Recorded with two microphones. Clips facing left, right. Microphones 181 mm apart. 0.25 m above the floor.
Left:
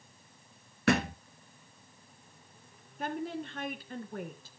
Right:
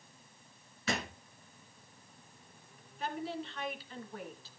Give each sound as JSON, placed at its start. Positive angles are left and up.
{"t": 0.9, "sound": "a thud", "side_deg": 70, "distance_m": 1.5}
{"t": 3.0, "sound": "a woman speaking", "side_deg": 55, "distance_m": 2.5}